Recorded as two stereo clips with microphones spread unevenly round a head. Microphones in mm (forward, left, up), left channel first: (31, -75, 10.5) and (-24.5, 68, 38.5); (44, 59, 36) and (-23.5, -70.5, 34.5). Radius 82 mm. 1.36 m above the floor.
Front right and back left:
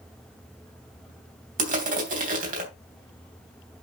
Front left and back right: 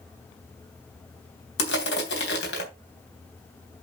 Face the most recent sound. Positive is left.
turn(degrees=75)